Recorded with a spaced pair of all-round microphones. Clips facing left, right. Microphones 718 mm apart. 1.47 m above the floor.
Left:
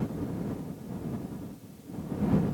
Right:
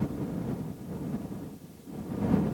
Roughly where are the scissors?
No scissors in this recording.